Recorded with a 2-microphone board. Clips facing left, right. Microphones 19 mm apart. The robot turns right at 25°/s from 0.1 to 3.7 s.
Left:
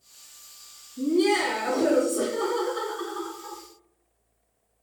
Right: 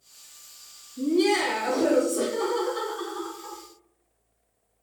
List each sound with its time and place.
1.0 s laughter: 90° right, 1.8 m; by 3.6 s 25° right, 1.8 m